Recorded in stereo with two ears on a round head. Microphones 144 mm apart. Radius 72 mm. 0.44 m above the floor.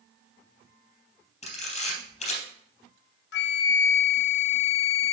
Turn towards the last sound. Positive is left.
turn(degrees=75)  # may be behind; listen again after turning